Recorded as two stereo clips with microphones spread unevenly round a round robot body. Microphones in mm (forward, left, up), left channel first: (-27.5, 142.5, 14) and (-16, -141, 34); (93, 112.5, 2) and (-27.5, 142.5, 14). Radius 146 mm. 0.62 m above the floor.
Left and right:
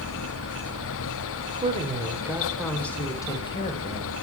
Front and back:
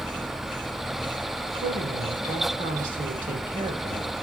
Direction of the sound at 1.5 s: 155° right.